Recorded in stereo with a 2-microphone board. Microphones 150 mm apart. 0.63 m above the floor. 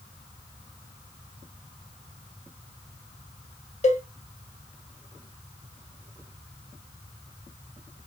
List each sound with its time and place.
3.8 s a cowbell: 50° left (ahead or behind), 0.7 m